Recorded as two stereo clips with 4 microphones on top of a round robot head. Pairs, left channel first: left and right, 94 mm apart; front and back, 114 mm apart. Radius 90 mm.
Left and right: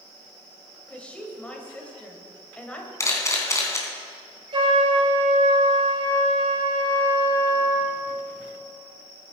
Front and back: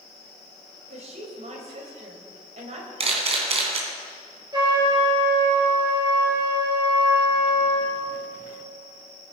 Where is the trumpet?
120° right, 4 m.